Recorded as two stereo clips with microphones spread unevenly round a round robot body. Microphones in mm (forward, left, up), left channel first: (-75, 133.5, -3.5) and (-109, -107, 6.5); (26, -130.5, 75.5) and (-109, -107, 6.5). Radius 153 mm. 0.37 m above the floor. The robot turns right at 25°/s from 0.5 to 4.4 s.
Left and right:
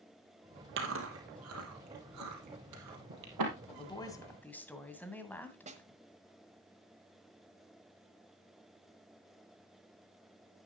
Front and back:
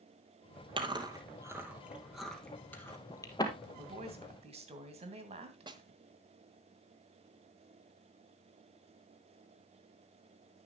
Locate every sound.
0.8 s chewing: 135° right, 2.5 m; by 3.5 s 65° right, 2.5 m
3.7 s a woman speaking: 145° left, 2 m; by 6.0 s 165° left, 2 m
5.7 s a snare drum: 160° right, 1.5 m